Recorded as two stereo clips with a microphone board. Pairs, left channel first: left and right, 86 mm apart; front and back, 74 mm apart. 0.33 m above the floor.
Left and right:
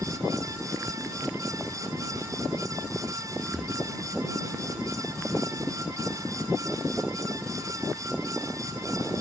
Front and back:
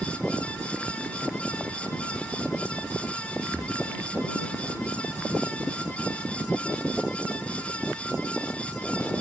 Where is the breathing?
175° right.